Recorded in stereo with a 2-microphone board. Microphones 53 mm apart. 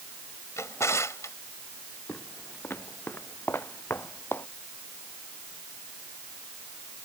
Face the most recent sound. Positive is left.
turn(degrees=50)  # may be behind; listen again after turning